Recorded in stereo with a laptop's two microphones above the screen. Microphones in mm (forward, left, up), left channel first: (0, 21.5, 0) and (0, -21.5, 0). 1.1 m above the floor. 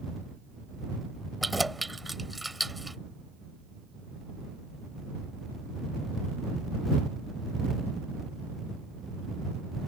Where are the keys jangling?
Centre (ahead or behind).